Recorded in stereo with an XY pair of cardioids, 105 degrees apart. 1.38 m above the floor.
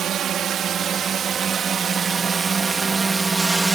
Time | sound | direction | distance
0.0 | a drone | 65° right | ?